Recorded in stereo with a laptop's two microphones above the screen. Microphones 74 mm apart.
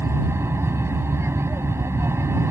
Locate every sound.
0.0 s an aircraft: 35° right (ahead or behind)